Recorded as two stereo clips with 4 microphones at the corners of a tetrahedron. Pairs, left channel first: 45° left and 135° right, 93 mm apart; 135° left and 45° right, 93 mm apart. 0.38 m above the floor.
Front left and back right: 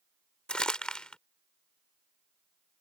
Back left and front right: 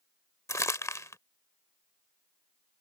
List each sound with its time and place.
0.5 s crumpling: 120° left